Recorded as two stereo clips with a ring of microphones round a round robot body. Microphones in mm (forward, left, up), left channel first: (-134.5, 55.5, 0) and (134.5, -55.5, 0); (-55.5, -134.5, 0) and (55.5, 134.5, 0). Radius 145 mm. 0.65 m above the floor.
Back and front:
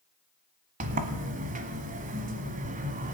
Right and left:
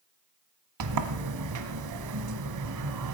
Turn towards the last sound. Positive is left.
turn(degrees=40)